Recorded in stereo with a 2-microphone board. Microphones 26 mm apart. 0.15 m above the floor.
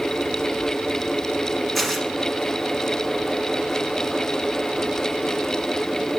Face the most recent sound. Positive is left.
turn(degrees=0)  # may be behind; listen again after turning